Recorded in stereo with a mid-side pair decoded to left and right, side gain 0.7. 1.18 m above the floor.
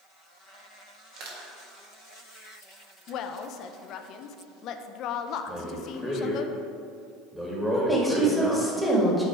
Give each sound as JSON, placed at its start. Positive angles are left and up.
{"t": 1.2, "sound": "crushing", "azimuth_deg": -60, "distance_m": 1.7}
{"t": 3.1, "sound": "a woman speaking", "azimuth_deg": 55, "distance_m": 0.5}
{"t": 5.5, "sound": "a man speaking", "azimuth_deg": -5, "distance_m": 1.7}
{"t": 7.7, "sound": "a woman speaking", "azimuth_deg": 0, "distance_m": 1.6}